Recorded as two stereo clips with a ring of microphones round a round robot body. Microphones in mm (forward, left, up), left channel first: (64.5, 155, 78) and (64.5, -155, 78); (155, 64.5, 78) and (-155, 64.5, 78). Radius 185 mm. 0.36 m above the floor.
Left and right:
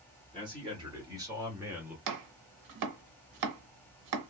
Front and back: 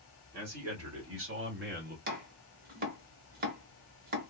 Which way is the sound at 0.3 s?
160° right.